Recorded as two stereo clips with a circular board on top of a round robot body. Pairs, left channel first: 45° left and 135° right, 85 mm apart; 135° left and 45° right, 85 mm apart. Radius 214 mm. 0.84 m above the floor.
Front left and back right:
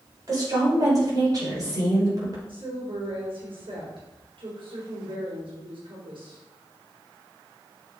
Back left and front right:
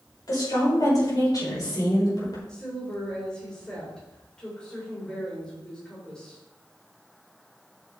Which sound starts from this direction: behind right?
A woman speaking, at 2.5 s.